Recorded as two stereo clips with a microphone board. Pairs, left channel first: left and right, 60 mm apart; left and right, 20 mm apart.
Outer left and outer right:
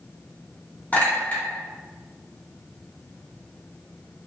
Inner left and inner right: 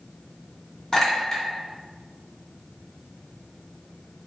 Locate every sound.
0.9 s a clink: 30° left (ahead or behind), 1.2 m